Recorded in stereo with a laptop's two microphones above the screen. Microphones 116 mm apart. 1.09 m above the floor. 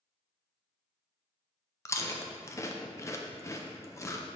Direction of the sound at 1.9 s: 25° left (ahead or behind).